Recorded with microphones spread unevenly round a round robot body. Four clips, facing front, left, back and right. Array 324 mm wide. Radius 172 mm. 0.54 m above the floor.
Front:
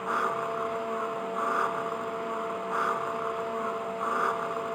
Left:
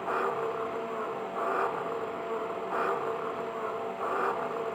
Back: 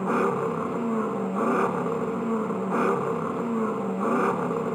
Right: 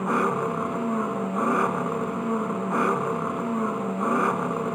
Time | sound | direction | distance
0.0 | an engine running | 135° right | ?